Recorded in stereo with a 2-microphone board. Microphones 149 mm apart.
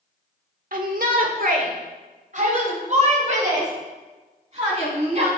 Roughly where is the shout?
Right.